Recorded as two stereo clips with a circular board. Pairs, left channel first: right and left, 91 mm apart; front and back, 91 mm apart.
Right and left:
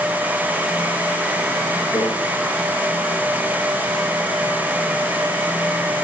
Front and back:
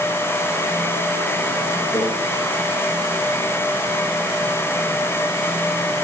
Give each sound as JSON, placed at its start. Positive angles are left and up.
{"t": 1.9, "sound": "a microwave", "azimuth_deg": -50, "distance_m": 5.5}